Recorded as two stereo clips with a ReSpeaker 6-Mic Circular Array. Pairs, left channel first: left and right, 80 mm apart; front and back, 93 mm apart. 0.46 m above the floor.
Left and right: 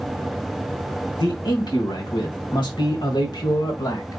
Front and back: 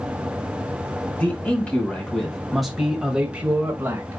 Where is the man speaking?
70° left, 2.5 m; by 4.2 s 120° left, 1.6 m.